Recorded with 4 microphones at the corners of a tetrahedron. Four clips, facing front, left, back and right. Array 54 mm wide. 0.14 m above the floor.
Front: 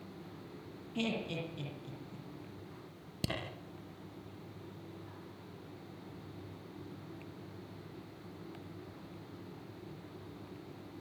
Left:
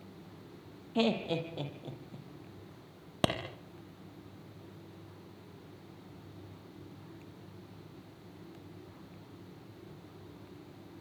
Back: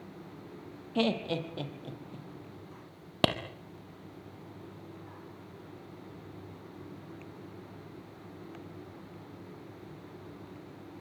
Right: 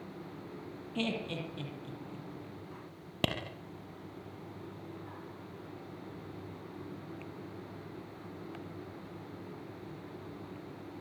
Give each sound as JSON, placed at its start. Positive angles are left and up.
{"t": 0.9, "sound": "laughter", "azimuth_deg": 145, "distance_m": 6.0}
{"t": 3.2, "sound": "a clap", "azimuth_deg": 165, "distance_m": 4.5}